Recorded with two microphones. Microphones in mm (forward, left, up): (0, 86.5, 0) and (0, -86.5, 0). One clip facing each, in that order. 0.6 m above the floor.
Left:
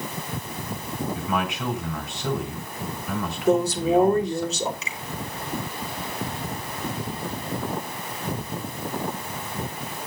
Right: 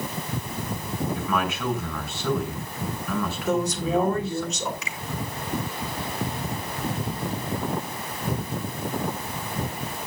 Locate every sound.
1.1 s a man speaking: 20° left (ahead or behind), 5.5 m
3.5 s a woman speaking: 35° left (ahead or behind), 2.5 m
4.8 s a finger snap: 25° left (ahead or behind), 5 m